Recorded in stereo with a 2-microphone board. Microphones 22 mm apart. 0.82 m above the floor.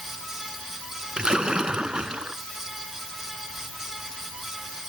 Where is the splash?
45° right (ahead or behind).